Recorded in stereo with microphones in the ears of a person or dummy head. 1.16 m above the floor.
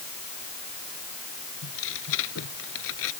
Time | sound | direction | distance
1.6 | tearing paper | 65° left (ahead or behind) | ?